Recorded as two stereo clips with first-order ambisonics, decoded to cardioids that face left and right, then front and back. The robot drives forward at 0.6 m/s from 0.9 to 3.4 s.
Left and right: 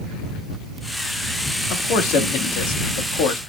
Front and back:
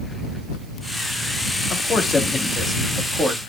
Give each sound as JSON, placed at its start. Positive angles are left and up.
{"t": 1.7, "sound": "a man speaking", "azimuth_deg": 60, "distance_m": 1.6}